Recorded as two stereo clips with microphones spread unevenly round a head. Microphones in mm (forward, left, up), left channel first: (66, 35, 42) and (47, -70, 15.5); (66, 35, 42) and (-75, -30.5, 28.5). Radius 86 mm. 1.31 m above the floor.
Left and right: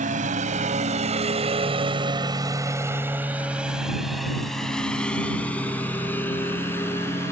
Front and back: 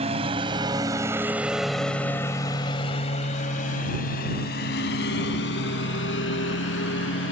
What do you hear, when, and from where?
0.0 s a lawn mower: 100° right; by 7.3 s 15° left